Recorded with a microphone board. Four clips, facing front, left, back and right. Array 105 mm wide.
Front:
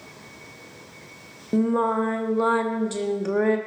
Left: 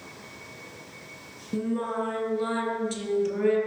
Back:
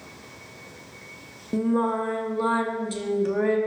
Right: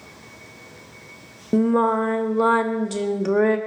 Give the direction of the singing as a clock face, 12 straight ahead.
2 o'clock.